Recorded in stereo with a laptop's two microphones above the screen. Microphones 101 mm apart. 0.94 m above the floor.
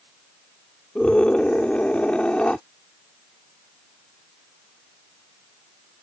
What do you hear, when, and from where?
0.9 s a scream: 10° left (ahead or behind)